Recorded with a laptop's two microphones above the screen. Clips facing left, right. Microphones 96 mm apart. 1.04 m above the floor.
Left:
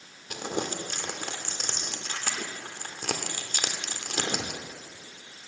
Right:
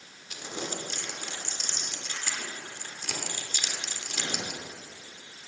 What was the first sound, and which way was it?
Crumpling, 55° left (ahead or behind).